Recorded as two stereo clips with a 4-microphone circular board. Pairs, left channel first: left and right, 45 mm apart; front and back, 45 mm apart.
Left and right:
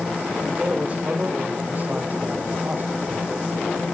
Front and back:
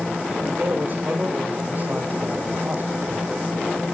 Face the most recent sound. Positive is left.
turn(degrees=-135)